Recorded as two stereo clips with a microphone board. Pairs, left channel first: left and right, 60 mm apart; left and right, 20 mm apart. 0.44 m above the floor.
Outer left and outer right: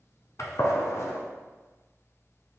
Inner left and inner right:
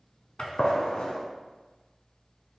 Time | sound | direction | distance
0.4 | a gunshot | 60° left (ahead or behind) | 0.8 m